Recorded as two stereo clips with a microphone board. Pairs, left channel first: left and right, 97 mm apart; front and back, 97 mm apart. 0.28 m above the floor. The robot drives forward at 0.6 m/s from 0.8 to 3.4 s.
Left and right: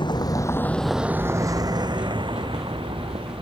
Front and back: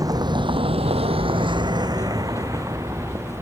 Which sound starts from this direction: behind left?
A vehicle, at 0.0 s.